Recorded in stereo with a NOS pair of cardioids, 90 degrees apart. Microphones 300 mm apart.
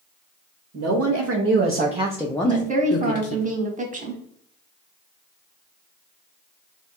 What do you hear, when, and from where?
0.7 s a woman speaking: 55° right, 1.2 m; by 3.4 s 55° left, 0.9 m
2.4 s a woman speaking: 25° right, 1.4 m